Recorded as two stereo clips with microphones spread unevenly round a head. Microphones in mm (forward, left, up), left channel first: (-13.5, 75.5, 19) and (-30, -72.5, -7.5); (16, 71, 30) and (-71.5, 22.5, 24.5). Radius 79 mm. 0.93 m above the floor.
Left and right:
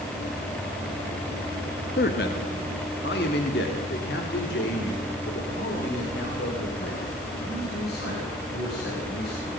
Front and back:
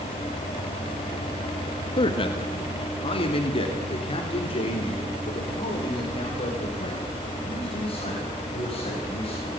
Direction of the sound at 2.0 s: 55° left.